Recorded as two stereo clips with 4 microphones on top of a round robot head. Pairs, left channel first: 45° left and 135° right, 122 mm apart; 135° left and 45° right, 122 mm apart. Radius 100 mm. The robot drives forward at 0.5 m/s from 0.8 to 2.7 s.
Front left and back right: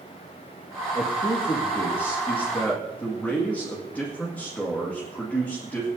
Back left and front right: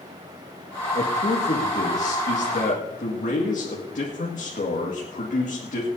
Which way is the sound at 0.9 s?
100° left.